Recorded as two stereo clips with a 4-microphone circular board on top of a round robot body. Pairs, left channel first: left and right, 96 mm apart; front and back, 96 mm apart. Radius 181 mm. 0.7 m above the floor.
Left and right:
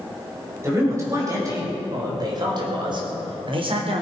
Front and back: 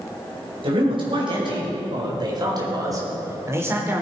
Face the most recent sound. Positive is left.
turn(degrees=-110)